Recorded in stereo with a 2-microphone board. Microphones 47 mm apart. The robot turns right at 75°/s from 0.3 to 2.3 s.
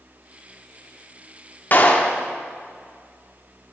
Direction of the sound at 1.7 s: 120° left.